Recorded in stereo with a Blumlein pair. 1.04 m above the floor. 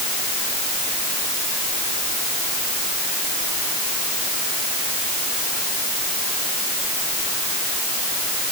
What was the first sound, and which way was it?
Only background noise.